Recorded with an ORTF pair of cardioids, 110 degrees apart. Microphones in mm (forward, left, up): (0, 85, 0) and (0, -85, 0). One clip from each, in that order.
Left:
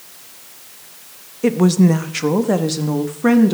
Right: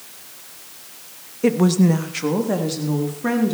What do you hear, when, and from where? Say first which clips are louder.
1.4 s a woman speaking: left 2 dB; 5° left, 1.0 m; by 3.5 s 40° left, 1.9 m